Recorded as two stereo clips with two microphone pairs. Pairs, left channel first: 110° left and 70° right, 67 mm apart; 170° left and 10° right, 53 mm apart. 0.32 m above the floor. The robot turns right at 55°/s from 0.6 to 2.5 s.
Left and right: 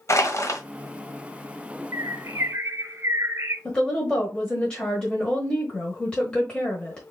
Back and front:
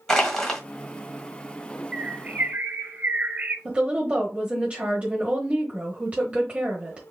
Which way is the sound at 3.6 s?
40° left.